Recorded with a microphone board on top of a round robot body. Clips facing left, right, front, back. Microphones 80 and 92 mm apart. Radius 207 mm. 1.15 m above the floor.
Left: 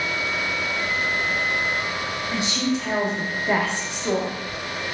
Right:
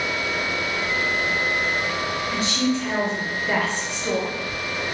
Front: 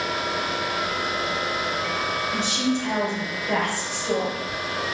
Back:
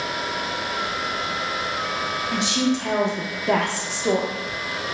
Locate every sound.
2.3 s a woman speaking: 165° left, 1.0 m